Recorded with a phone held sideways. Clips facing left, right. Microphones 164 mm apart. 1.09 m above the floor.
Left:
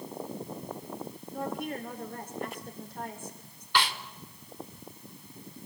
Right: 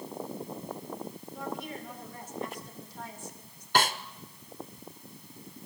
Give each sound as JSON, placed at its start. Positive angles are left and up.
{"t": 1.3, "sound": "a woman speaking", "side_deg": 55, "distance_m": 4.5}
{"t": 3.8, "sound": "a snare drum", "side_deg": -45, "distance_m": 1.0}